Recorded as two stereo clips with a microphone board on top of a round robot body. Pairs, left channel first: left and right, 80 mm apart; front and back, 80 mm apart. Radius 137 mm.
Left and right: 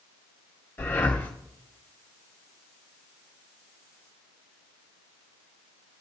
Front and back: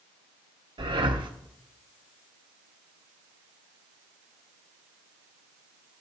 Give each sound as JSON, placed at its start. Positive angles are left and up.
{"t": 0.8, "sound": "breathing", "azimuth_deg": 155, "distance_m": 1.2}